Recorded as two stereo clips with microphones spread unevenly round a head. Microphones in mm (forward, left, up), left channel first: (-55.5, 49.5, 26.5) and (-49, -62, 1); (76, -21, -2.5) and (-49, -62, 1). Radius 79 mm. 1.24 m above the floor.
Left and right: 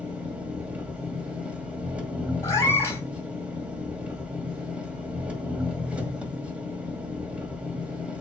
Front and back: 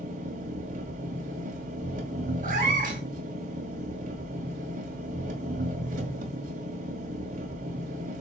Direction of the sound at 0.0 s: 170° right.